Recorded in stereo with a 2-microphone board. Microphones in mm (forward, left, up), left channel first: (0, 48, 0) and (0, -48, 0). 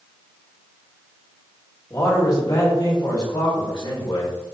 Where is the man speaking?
35° left (ahead or behind), 1.6 m; by 4.3 s 65° left (ahead or behind), 3 m.